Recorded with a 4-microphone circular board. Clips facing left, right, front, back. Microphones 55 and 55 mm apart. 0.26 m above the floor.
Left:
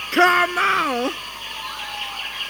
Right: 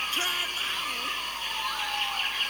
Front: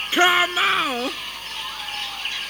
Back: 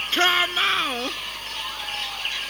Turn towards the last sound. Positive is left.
turn(degrees=80)